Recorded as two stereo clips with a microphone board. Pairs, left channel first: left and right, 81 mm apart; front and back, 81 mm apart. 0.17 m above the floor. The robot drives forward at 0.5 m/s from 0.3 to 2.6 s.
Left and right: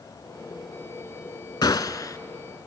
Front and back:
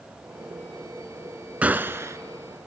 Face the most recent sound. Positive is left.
turn(degrees=145)